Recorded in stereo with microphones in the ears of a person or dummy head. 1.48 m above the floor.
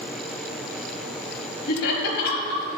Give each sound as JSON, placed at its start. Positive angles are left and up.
{"t": 1.7, "sound": "laughter", "side_deg": 60, "distance_m": 1.1}